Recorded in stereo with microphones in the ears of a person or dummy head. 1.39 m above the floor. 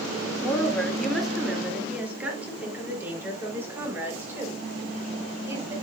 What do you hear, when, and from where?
0.4 s a woman speaking: 5° left (ahead or behind), 2 m; by 5.7 s 15° right (ahead or behind), 5 m